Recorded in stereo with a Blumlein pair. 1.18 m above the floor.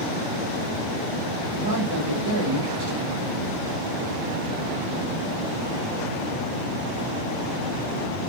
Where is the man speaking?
65° right, 3 m.